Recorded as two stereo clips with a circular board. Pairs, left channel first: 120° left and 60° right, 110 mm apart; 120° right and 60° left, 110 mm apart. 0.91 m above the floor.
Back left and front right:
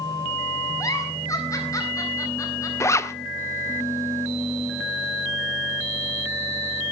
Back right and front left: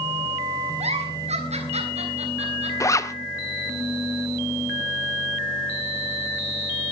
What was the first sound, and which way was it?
A giggle, 60° left.